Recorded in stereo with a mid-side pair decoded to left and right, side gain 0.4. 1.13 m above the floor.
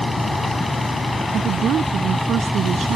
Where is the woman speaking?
70° right.